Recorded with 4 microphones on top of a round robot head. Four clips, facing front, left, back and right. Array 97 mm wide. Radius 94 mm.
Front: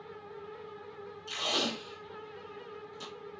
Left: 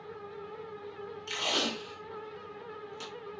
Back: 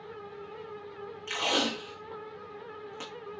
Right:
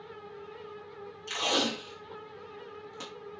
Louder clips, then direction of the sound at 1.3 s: Right 3 dB, back 4 dB; 150° right.